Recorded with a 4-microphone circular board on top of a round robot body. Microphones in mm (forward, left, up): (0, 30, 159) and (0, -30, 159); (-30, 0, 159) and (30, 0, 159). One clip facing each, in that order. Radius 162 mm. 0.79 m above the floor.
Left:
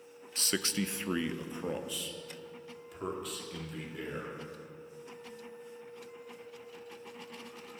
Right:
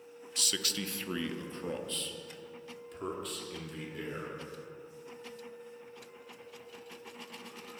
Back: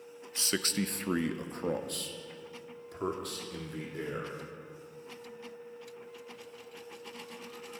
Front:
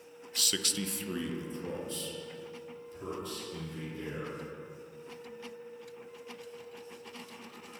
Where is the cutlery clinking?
I don't hear cutlery clinking.